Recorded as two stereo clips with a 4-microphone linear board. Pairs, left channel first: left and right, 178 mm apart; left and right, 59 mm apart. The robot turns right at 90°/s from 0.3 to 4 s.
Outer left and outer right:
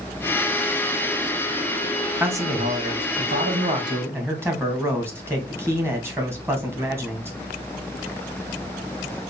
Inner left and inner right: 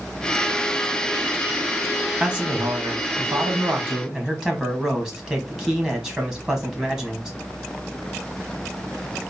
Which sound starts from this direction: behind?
A man speaking, at 2.2 s.